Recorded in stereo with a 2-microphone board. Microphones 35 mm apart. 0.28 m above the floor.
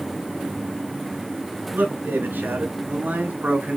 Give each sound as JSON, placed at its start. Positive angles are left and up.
{"t": 1.7, "sound": "a man speaking", "side_deg": -65, "distance_m": 3.5}